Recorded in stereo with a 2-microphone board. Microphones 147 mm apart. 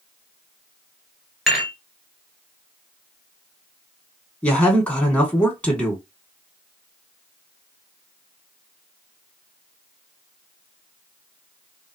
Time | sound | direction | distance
1.5 | dishes clattering | centre (ahead or behind) | 1.7 m
4.4 | a man speaking | 10° left (ahead or behind) | 1.2 m